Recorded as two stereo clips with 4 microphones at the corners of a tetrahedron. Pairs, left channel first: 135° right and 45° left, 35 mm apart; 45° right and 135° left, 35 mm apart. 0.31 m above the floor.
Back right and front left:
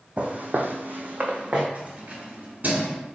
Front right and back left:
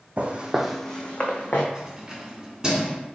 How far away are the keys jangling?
About 1.5 m.